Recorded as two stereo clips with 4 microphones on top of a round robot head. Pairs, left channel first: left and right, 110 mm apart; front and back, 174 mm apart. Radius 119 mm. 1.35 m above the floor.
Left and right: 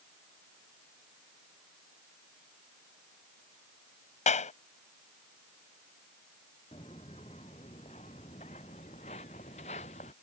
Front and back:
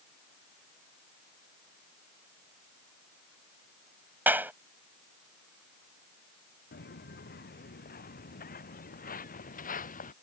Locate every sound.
4.3 s a clap: 100° left
6.7 s footsteps: 30° left; by 10.1 s 40° left